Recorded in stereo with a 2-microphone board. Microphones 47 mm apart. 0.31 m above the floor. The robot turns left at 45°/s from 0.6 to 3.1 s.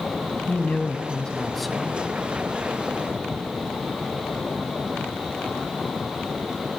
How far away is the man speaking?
About 2.5 m.